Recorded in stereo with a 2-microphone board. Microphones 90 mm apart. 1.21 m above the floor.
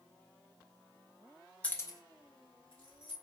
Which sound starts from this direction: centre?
Keys jangling, at 1.6 s.